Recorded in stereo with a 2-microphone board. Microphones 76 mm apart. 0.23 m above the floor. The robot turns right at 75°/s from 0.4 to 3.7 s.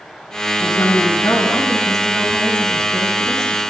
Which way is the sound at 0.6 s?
70° left.